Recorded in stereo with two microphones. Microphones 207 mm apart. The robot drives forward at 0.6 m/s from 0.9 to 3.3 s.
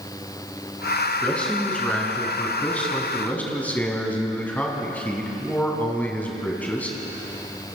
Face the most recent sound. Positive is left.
turn(degrees=10)  # may be behind; listen again after turning